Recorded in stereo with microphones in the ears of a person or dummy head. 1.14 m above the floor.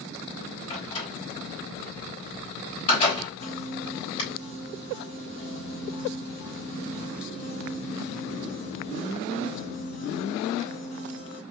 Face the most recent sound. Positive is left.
turn(degrees=70)  # may be behind; listen again after turning